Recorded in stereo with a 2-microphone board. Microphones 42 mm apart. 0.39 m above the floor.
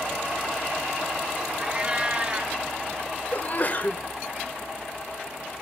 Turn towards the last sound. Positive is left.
turn(degrees=40)  # may be behind; listen again after turning